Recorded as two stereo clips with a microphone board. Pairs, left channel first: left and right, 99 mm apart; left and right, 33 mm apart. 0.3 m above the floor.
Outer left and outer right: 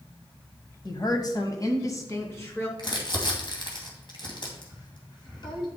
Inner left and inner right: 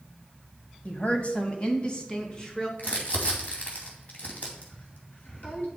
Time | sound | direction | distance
0.8 | a woman speaking | 45° left (ahead or behind) | 1.5 m
2.8 | crumpling | 50° left (ahead or behind) | 2.5 m